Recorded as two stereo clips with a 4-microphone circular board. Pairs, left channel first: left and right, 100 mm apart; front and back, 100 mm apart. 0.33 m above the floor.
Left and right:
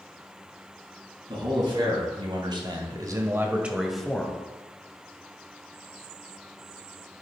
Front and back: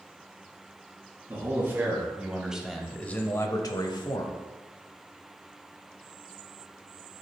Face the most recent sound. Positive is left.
turn(degrees=15)